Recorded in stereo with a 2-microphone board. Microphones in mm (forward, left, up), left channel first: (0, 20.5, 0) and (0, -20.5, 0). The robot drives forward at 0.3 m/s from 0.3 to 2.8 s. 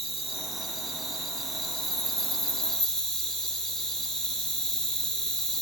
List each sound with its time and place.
0.0 s an insect: 5° left (ahead or behind), 1.3 m; by 5.6 s 10° left (ahead or behind), 0.7 m